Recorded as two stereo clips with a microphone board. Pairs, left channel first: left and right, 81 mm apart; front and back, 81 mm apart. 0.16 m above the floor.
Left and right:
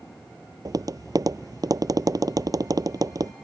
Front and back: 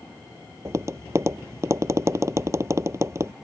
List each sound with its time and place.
0.7 s tapping: 130° right